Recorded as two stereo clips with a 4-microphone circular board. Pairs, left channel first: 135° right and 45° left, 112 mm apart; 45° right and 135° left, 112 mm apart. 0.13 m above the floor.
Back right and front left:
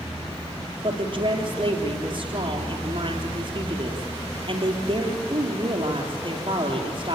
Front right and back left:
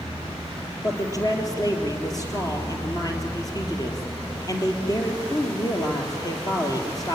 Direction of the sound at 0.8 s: 10° left.